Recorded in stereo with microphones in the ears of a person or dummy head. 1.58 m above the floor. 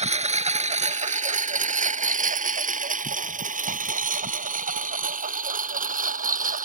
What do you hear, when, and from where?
0.0 s a lawn mower: 30° right (ahead or behind); by 6.7 s 40° right (ahead or behind)